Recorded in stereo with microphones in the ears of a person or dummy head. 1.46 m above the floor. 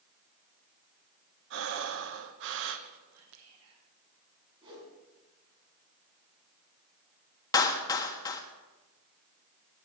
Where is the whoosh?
30° right (ahead or behind), 7 m.